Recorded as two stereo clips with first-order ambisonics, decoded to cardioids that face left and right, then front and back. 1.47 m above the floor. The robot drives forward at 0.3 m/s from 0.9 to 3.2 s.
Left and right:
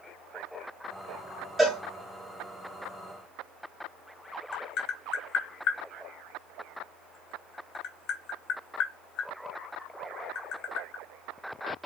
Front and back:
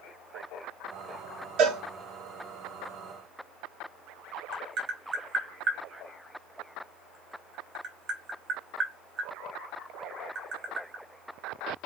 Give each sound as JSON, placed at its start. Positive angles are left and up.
{"t": 1.6, "sound": "a cowbell", "azimuth_deg": -165, "distance_m": 1.0}
{"t": 4.5, "sound": "tapping", "azimuth_deg": 135, "distance_m": 1.0}